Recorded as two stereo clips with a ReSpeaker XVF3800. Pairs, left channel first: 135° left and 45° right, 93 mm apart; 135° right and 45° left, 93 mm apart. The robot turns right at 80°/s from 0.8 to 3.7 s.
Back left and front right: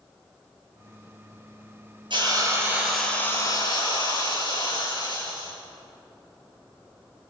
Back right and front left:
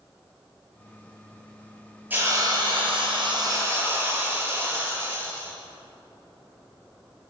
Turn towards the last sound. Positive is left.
turn(degrees=100)